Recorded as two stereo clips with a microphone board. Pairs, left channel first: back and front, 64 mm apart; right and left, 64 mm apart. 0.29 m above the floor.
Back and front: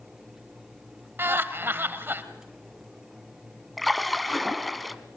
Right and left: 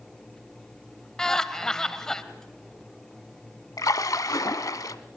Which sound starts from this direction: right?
A splash, at 3.8 s.